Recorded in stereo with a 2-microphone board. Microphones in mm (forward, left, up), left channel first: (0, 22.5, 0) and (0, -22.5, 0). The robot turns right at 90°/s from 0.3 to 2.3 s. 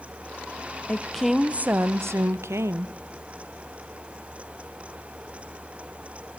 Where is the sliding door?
I don't hear a sliding door.